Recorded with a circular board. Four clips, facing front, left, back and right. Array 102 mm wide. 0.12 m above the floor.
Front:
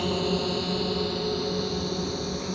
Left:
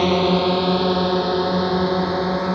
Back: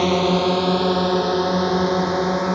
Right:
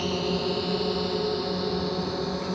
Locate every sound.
0.0 s a drone: 130° left; by 2.6 s 140° left